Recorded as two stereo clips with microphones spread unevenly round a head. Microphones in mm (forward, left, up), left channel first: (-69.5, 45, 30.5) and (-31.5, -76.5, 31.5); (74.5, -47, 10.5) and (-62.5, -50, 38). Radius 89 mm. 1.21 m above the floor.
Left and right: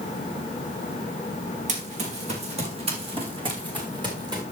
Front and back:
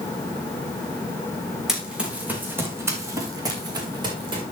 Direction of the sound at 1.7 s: 95° right.